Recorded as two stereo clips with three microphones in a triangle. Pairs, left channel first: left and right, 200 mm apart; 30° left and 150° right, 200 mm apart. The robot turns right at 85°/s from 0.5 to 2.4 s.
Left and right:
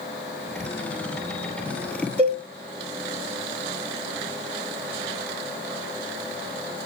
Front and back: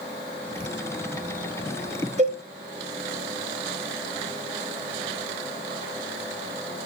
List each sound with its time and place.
2.2 s a cowbell: 125° right, 1.9 m; by 2.4 s 110° right, 1.9 m